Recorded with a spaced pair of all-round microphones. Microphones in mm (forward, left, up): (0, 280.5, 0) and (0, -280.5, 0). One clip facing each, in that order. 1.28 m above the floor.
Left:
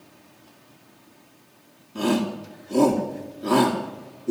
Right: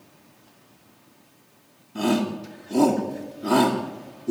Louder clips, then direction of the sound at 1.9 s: Even; 5° right (ahead or behind).